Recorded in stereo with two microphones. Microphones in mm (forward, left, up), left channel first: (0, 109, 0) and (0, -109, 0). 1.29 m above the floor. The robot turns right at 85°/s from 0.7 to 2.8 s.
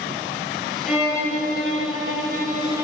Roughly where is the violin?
Behind.